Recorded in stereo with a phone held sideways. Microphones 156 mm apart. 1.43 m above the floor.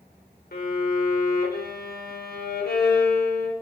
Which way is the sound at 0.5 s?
80° left.